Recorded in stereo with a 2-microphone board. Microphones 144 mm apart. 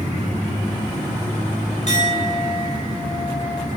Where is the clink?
50° left (ahead or behind), 5 m.